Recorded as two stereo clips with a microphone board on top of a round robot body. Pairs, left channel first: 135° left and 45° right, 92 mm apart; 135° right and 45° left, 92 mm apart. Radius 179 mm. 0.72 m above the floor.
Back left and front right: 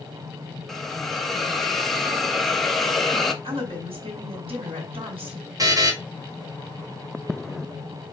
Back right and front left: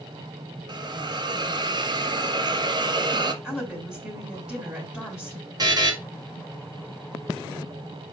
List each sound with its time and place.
0.7 s a hiss: 50° left, 1.5 m
3.4 s a woman speaking: 40° right, 4 m
5.6 s a buzzer: 5° left, 3 m